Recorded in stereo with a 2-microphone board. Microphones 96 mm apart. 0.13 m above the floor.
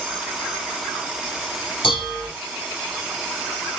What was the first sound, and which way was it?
Dishes clattering, 70° left (ahead or behind).